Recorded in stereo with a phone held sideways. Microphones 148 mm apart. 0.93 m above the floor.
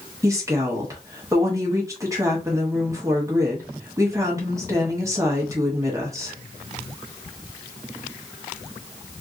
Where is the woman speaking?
20° right (ahead or behind), 1.2 m.